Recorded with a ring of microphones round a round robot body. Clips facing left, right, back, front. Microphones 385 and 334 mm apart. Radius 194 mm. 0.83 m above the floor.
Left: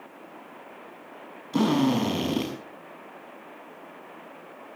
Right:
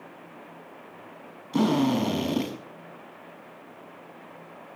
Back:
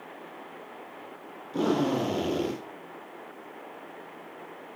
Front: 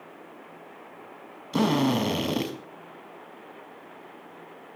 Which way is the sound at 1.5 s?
5° right.